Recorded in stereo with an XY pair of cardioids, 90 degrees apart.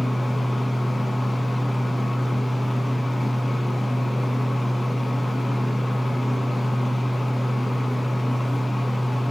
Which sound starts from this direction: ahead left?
A fan, at 0.0 s.